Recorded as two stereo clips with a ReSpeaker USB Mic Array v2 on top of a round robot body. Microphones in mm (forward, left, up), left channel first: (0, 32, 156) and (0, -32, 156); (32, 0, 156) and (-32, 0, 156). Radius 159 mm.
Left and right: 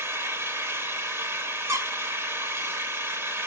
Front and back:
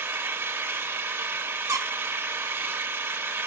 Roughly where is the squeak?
Behind right.